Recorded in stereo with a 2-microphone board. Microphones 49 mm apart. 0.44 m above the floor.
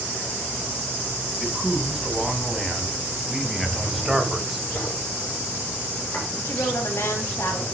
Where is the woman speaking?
70° left (ahead or behind), 2.5 m.